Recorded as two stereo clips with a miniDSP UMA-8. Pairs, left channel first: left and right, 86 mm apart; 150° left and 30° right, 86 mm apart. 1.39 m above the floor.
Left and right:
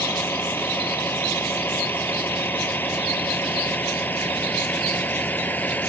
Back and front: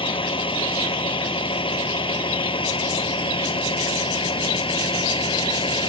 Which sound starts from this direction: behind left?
A vehicle, at 0.0 s.